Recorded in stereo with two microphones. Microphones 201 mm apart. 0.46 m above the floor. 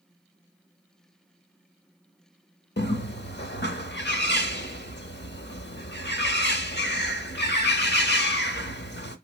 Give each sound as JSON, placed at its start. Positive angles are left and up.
{"t": 2.8, "sound": "a bird", "side_deg": 60, "distance_m": 0.7}